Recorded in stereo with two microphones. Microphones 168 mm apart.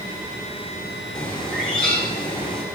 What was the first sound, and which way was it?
A bird, 5° left (ahead or behind).